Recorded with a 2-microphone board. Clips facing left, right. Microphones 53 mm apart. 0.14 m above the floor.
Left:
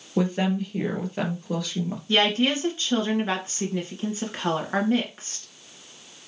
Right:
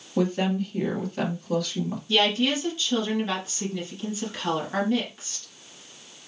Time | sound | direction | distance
0.2 | a woman speaking | 20° left (ahead or behind) | 2.5 m
2.1 | a woman speaking | 35° left (ahead or behind) | 2 m